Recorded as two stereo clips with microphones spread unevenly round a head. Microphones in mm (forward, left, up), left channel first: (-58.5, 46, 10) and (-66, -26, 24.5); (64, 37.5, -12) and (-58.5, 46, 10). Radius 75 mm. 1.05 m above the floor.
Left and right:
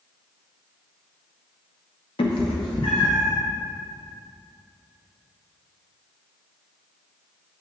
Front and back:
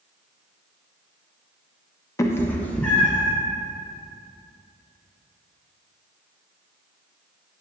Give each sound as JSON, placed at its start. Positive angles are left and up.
{"t": 2.2, "sound": "a cat meowing", "azimuth_deg": 65, "distance_m": 0.6}